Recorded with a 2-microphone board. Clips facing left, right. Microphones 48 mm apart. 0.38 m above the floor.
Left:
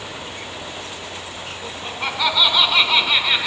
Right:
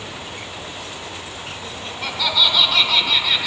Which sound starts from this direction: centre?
Laughter, at 1.6 s.